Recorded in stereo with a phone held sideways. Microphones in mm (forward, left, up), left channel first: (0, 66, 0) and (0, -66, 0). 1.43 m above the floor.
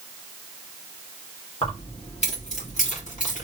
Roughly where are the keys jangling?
Left.